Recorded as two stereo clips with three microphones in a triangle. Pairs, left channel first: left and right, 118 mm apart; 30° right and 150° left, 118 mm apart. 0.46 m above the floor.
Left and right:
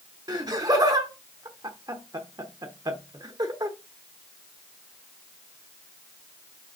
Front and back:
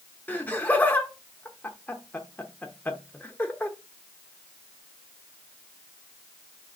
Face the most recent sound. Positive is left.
turn(degrees=-95)